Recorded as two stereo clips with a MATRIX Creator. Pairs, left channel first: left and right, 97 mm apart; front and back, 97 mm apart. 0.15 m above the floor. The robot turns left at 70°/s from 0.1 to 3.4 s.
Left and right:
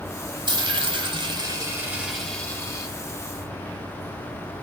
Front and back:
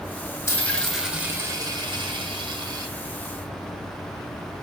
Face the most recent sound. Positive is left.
turn(degrees=95)